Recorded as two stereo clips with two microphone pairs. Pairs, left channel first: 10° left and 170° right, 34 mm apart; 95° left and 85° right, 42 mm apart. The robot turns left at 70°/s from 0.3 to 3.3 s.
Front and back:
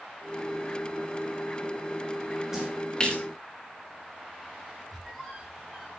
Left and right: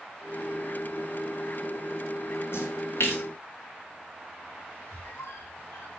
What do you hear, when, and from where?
2.5 s a splash: 120° left, 5.5 m; by 3.2 s 70° left, 5.5 m
4.9 s a squeak: 105° left, 6 m